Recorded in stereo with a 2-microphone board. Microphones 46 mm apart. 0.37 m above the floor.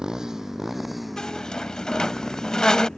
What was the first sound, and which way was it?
A motorcycle, 15° right (ahead or behind).